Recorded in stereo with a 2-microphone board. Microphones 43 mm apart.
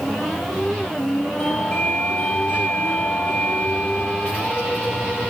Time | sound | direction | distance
1.4 | a doorbell | 45° left (ahead or behind) | 7.5 m